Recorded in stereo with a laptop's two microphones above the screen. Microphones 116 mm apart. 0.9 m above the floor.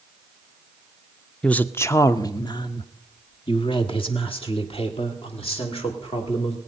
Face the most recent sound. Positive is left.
turn(degrees=55)  # may be behind; listen again after turning